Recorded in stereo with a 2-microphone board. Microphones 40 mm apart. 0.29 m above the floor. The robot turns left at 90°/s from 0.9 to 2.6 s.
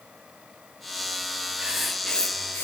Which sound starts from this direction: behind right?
Writing, at 1.6 s.